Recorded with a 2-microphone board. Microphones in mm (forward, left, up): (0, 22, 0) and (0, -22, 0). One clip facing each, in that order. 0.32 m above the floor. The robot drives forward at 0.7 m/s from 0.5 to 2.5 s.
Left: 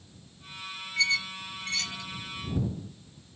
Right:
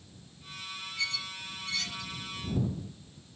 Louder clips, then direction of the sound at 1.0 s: Left 9 dB; 75° left (ahead or behind).